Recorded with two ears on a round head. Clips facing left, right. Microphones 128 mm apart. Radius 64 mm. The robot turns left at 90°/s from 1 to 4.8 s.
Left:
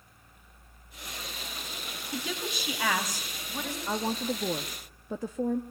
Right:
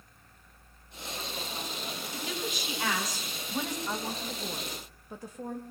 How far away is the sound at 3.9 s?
About 1.1 m.